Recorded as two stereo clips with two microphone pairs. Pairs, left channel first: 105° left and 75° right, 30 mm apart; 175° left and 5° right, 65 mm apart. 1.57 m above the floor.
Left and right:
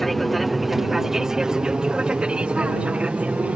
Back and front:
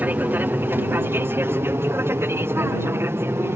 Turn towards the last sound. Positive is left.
turn(degrees=-45)